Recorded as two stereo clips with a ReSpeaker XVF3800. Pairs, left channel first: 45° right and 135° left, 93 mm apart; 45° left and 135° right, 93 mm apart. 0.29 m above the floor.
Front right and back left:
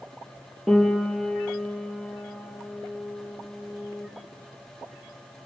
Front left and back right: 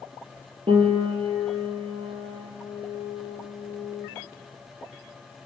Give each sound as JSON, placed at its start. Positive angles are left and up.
{"t": 0.7, "sound": "a piano", "azimuth_deg": -135, "distance_m": 6.5}